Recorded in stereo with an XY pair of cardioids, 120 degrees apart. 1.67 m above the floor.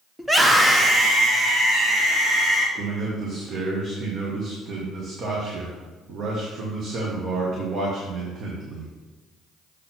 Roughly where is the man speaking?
Ahead right.